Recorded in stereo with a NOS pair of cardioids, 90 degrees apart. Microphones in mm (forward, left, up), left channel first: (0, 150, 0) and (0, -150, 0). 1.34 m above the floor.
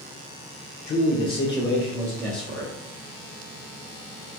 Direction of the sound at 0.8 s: 40° left.